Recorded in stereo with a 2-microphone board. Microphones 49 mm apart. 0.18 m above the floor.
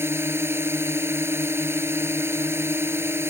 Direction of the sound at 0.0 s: 60° right (ahead or behind).